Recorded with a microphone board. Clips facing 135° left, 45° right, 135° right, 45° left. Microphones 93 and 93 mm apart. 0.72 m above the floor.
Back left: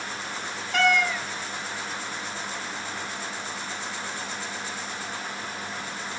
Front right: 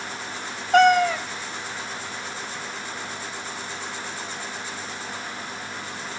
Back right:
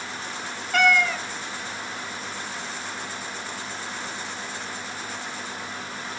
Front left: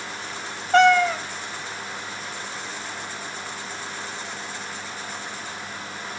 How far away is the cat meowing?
About 0.8 m.